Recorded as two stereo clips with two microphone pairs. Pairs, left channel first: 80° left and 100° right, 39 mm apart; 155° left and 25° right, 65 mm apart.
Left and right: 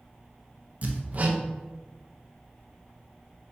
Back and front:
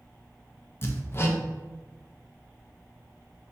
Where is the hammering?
150° right, 0.6 m.